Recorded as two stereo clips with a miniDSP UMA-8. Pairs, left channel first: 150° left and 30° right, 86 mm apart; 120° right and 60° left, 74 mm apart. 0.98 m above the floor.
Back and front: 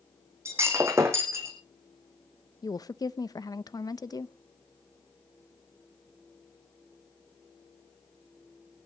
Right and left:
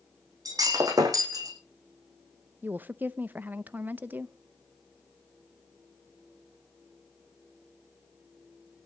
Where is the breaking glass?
25° left, 3.5 m.